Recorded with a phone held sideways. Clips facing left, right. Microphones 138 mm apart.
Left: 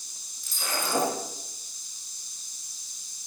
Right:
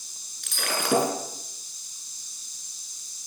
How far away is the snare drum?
I don't hear a snare drum.